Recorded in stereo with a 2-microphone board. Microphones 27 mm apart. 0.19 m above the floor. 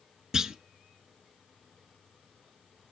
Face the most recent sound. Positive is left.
turn(degrees=-25)  # may be behind; listen again after turning